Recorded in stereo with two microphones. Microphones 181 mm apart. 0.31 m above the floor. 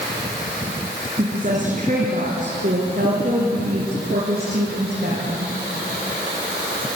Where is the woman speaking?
40° right (ahead or behind), 3.5 m; by 5.5 s 60° right (ahead or behind), 5.5 m.